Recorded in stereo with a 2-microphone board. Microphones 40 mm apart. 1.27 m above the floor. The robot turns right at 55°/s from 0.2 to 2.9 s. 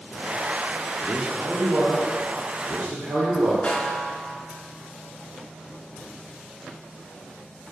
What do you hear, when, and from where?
1.0 s a man speaking: 175° left, 0.6 m; by 3.5 s 80° right, 0.6 m
3.6 s a snare drum: 40° left (ahead or behind), 0.6 m